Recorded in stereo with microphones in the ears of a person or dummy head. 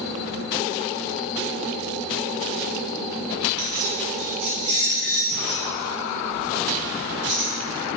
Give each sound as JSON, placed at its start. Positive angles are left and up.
{"t": 3.6, "sound": "keys jangling", "side_deg": -70, "distance_m": 0.7}